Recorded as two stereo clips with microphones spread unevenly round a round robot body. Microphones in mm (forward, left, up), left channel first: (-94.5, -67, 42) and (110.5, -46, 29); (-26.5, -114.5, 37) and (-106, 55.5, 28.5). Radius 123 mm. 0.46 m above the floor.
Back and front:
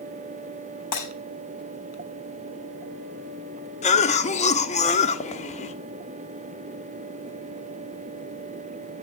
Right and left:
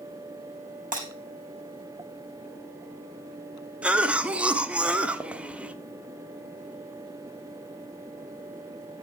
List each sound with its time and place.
0.9 s breaking glass: 160° left, 6.5 m
3.8 s a cough: 175° right, 1.2 m